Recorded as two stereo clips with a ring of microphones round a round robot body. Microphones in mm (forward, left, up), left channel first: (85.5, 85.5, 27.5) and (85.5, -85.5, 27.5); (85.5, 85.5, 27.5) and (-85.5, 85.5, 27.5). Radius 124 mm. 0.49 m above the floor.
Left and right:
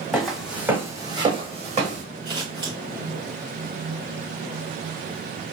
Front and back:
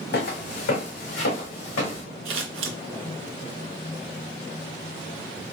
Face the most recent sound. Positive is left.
turn(degrees=-165)